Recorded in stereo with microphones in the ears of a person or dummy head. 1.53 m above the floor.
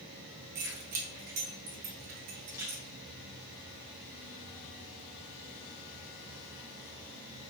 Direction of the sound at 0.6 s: 50° right (ahead or behind).